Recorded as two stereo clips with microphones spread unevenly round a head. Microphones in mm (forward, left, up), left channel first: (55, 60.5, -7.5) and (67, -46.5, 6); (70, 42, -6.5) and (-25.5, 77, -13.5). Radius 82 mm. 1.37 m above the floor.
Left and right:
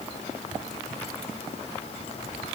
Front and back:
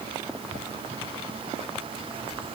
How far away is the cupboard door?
No cupboard door in this recording.